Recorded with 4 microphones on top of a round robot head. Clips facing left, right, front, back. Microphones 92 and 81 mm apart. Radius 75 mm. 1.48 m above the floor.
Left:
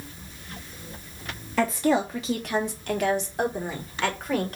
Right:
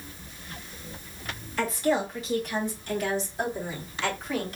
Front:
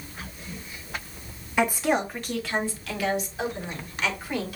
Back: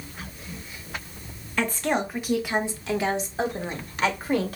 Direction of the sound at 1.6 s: 70° left.